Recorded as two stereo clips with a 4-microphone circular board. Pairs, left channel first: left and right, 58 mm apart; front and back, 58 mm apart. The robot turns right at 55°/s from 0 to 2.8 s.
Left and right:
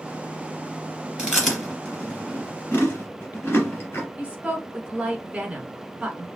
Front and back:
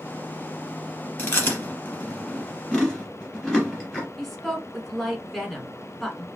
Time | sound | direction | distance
1.2 | chewing | 20° right | 2 m
4.2 | a woman speaking | 80° right | 1.1 m